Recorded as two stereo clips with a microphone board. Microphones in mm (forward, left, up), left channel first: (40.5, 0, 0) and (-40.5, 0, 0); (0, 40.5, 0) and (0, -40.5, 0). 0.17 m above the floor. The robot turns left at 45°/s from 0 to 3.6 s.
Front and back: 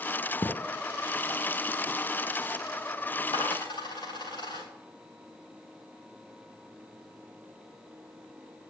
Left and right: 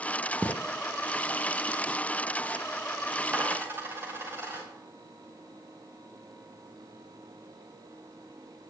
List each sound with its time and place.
0.4 s a thud: 5° left, 2.5 m; by 0.6 s straight ahead, 2.5 m
3.3 s a dropped coin: 15° right, 4.5 m; by 4.7 s 25° right, 4.5 m